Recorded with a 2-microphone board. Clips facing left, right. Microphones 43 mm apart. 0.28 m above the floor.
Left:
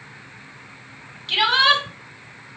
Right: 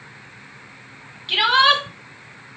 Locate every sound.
1.3 s a shout: 15° right (ahead or behind), 2.0 m